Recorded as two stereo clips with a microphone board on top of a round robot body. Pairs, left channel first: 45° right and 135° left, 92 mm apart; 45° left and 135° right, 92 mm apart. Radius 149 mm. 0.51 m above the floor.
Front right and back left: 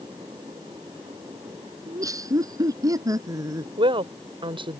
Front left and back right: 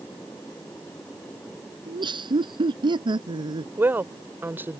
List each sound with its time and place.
1.9 s laughter: 170° right
3.8 s a woman speaking: 155° left